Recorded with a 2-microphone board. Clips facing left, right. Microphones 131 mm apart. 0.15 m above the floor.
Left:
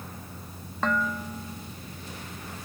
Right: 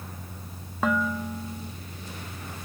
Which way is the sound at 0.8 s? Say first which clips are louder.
Right 2 dB; 5° right (ahead or behind).